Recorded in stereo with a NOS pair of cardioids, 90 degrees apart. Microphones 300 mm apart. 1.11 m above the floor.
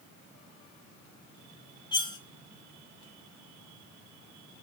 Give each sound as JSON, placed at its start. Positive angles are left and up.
{"t": 1.9, "sound": "cutlery clinking", "azimuth_deg": 15, "distance_m": 1.0}